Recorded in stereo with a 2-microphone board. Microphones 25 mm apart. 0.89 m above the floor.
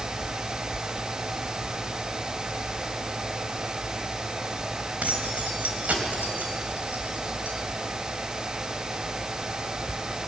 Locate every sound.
5.0 s keys jangling: 65° right (ahead or behind), 3.5 m